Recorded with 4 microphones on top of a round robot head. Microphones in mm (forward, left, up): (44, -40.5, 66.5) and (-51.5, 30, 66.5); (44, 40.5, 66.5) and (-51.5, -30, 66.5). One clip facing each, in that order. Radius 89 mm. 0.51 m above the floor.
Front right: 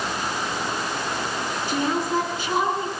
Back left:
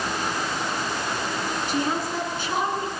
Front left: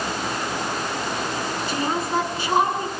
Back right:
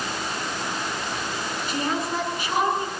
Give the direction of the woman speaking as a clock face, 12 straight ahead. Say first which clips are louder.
Front right 4 dB, front left 2 dB; 1 o'clock.